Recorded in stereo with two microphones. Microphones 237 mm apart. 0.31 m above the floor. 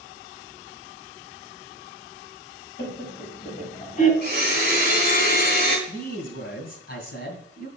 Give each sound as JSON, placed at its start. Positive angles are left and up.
{"t": 2.8, "sound": "laughter", "side_deg": 50, "distance_m": 1.9}
{"t": 4.2, "sound": "a blender", "side_deg": 45, "distance_m": 3.5}
{"t": 5.9, "sound": "a man speaking", "side_deg": 45, "distance_m": 2.5}